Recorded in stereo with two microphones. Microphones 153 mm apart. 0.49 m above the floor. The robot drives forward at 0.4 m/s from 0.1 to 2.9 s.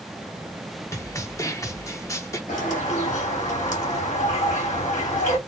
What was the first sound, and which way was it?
A snare drum, 20° left (ahead or behind).